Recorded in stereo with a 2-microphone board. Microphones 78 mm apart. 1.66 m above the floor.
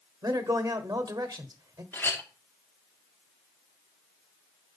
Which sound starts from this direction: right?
A man speaking, at 0.2 s.